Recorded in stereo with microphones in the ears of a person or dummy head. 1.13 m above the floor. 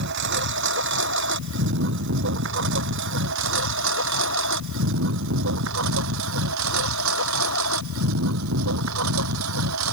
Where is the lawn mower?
60° right (ahead or behind); by 9.9 s 80° right.